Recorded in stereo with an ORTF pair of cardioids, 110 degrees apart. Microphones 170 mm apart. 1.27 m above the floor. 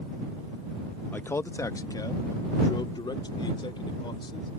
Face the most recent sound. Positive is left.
turn(degrees=30)